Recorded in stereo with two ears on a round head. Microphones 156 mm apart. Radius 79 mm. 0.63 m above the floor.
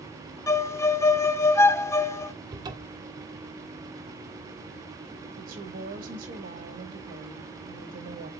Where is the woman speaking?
60° right (ahead or behind), 4 m.